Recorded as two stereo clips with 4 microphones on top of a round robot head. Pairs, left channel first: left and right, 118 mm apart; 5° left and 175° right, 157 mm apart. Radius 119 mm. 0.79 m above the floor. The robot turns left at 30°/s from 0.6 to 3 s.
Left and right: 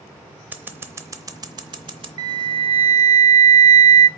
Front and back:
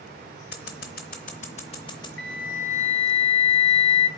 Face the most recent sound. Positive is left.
turn(degrees=-60)